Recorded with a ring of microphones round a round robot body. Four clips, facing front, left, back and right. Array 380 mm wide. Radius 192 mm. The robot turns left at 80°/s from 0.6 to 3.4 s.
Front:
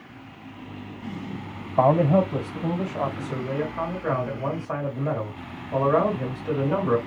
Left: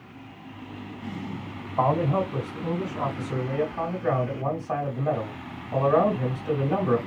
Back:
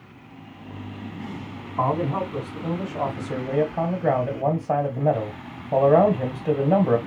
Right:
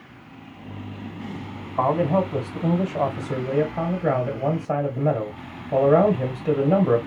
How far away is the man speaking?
About 2 m.